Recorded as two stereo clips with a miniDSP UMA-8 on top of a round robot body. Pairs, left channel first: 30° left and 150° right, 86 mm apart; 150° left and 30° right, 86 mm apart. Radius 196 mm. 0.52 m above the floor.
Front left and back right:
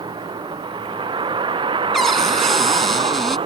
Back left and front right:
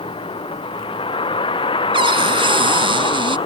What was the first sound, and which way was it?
A vehicle, 175° left.